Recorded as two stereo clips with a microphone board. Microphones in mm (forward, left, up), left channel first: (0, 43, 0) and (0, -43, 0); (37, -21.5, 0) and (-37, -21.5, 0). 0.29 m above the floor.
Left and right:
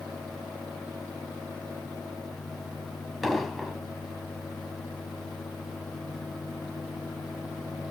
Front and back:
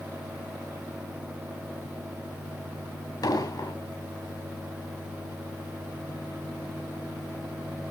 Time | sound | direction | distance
3.2 | an explosion | straight ahead | 2.0 m